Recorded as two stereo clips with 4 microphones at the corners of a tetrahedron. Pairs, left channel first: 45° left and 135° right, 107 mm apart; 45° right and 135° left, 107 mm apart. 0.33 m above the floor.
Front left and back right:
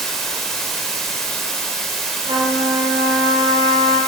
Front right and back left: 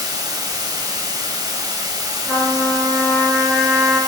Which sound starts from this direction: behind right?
A trumpet, at 2.2 s.